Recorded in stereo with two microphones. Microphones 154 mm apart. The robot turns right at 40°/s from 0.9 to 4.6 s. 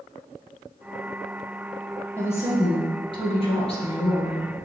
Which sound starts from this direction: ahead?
A woman speaking, at 2.2 s.